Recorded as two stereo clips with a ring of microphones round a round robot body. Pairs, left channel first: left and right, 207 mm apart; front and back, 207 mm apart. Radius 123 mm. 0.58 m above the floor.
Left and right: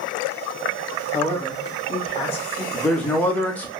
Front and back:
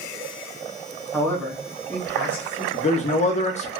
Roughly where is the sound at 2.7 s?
Ahead.